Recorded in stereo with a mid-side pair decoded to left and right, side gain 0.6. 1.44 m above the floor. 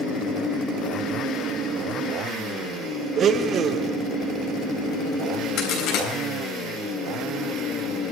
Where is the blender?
45° right, 0.8 m.